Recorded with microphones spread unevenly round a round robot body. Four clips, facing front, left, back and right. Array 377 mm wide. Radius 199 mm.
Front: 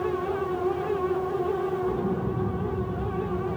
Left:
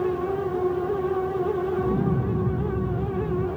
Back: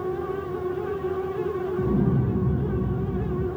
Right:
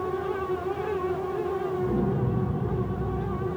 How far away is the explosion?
About 4.5 m.